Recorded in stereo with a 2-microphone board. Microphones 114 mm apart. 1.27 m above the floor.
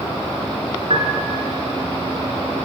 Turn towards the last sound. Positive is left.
turn(degrees=-60)  # may be behind; listen again after turning